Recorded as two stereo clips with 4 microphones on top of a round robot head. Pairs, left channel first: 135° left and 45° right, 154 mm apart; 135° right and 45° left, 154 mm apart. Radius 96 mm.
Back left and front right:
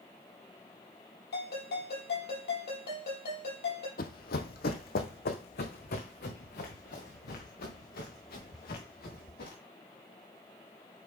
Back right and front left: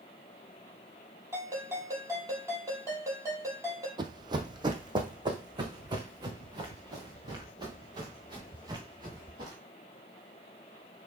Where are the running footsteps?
105° left, 0.7 m; by 9.6 s 110° left, 4.5 m.